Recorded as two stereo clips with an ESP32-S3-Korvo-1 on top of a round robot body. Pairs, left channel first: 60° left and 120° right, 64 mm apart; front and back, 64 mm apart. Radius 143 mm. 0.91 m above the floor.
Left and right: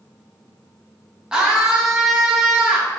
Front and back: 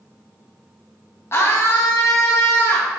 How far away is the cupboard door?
I don't hear a cupboard door.